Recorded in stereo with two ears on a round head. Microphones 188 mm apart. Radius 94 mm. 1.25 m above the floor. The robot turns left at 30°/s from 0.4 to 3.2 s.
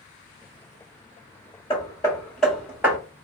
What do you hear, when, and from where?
1.7 s hammering: 25° left (ahead or behind), 1.6 m; by 3.0 s 15° right (ahead or behind), 1.6 m